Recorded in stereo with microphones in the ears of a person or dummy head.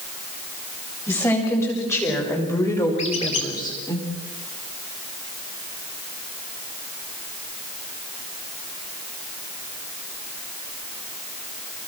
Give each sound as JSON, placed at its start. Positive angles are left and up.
{"t": 1.1, "sound": "a woman speaking", "side_deg": 15, "distance_m": 7.0}
{"t": 3.0, "sound": "a squeak", "side_deg": 35, "distance_m": 2.5}